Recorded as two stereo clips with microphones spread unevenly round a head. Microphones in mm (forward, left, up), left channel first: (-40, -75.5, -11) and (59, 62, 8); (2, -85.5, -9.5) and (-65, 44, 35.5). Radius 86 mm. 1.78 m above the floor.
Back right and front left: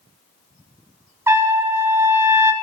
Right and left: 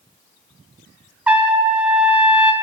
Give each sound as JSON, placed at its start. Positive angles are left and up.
{"t": 1.3, "sound": "a trumpet", "azimuth_deg": 95, "distance_m": 1.6}